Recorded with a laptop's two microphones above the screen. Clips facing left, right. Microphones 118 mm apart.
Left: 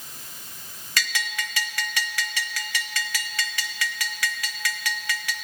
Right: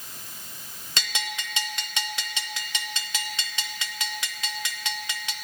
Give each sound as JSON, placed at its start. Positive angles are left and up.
{"t": 1.0, "sound": "a bell", "side_deg": -25, "distance_m": 0.7}